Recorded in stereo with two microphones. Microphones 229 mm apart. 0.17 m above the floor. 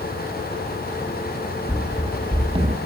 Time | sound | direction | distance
1.7 | running footsteps | centre (ahead or behind) | 1.3 m